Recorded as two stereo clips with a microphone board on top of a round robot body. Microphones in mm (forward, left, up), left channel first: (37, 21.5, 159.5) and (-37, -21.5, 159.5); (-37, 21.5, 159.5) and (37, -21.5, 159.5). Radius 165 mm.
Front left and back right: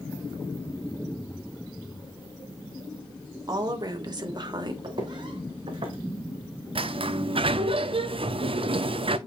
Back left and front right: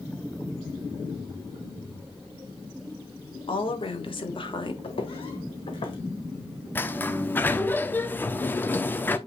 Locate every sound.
3.5 s a woman speaking: 165° left, 3 m; by 4.7 s 175° left, 2 m
4.8 s footsteps: 170° left, 1.8 m; by 6.0 s straight behind, 2.5 m
6.8 s a sliding door: 140° right, 1.0 m